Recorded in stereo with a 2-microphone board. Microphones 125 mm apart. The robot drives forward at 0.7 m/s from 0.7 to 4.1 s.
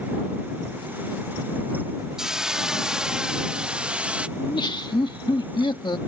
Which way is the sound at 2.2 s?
5° right (ahead or behind).